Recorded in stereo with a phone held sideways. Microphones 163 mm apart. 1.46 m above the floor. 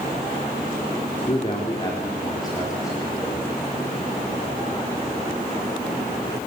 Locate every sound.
1.2 s a man speaking: 35° left (ahead or behind), 3.5 m; by 3.5 s 20° left (ahead or behind), 5 m